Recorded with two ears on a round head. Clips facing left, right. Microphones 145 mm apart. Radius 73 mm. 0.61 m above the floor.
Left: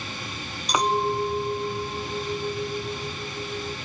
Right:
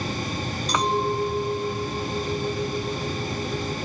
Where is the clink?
10° left (ahead or behind), 0.5 m.